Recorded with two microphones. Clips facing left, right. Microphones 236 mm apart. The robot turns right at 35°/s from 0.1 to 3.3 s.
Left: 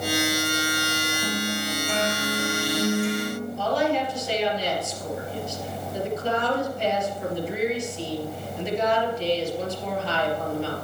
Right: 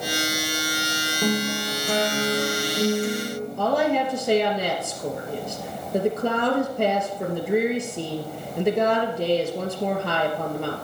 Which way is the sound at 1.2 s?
105° right.